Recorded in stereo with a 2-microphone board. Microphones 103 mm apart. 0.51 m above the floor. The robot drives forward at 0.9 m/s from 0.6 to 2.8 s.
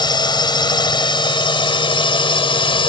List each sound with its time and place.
0.0 s a drone: 50° left (ahead or behind); by 2.9 s 60° left (ahead or behind)